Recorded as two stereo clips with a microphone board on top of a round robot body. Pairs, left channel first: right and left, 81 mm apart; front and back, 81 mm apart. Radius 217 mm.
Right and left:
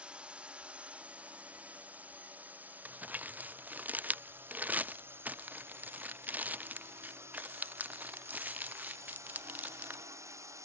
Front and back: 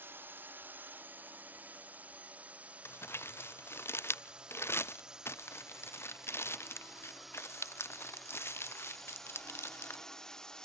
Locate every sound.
0.0 s a drone: 155° left; by 10.7 s 80° left
2.9 s crumpling: 35° left